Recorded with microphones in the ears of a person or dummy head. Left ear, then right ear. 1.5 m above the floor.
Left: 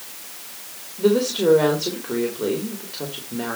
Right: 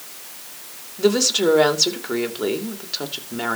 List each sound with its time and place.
1.0 s a woman speaking: 70° right (ahead or behind), 3 m